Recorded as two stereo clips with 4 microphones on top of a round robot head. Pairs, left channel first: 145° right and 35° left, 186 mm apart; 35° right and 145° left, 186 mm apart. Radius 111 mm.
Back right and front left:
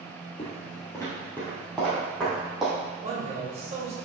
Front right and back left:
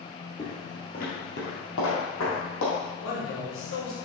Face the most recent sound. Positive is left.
turn(degrees=-25)